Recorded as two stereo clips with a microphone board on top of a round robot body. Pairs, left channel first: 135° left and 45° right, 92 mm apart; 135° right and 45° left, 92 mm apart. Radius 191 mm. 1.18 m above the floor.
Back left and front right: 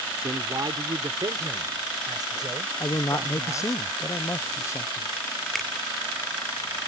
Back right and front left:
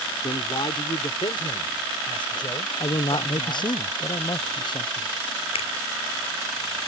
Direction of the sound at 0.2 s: 100° right.